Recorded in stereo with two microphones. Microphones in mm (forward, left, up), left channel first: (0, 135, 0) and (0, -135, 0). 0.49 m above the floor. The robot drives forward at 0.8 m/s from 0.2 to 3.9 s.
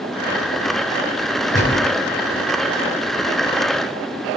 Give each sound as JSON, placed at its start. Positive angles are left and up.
{"t": 1.5, "sound": "a gunshot", "side_deg": 35, "distance_m": 1.9}